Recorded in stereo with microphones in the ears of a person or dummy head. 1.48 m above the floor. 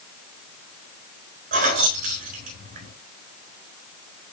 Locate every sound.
1.5 s keys jangling: 45° right (ahead or behind), 4 m